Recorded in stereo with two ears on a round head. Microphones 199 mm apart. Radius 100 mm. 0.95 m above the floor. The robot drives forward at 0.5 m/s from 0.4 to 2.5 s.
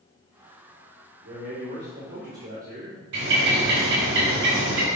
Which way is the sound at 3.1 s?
60° right (ahead or behind).